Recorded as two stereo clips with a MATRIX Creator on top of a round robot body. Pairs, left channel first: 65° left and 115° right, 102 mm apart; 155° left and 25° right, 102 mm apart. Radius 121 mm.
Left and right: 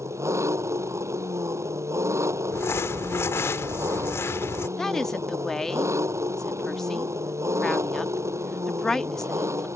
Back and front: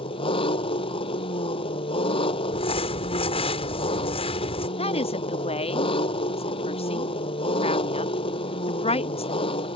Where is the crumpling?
135° left.